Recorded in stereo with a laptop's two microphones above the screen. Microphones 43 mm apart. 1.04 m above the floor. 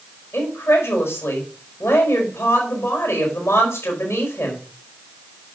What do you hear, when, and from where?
0.3 s a woman speaking: 85° left, 4.5 m